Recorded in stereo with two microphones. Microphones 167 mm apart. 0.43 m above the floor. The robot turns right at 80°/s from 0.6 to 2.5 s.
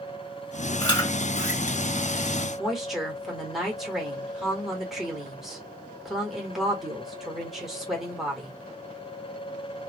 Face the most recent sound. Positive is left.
turn(degrees=0)  # may be behind; listen again after turning